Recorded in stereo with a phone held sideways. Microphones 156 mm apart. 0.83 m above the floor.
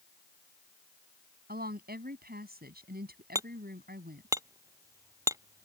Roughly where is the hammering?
Right.